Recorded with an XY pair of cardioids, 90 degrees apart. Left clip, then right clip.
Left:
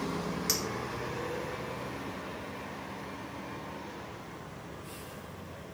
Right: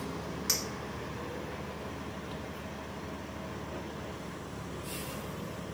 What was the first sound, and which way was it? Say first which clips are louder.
A clink: even; 20° left.